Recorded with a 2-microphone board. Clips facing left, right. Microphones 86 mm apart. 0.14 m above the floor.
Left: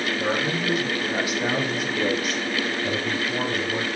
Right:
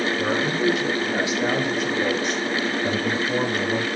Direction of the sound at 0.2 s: 15° right (ahead or behind).